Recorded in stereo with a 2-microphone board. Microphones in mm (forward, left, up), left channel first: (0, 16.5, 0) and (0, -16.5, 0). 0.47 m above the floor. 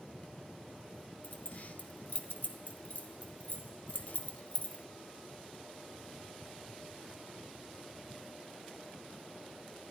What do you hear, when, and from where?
1.2 s keys jangling: 55° left (ahead or behind), 1.1 m